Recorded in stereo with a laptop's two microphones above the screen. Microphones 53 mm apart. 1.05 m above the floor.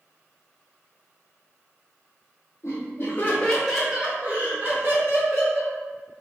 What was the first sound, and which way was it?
Laughter, 55° left (ahead or behind).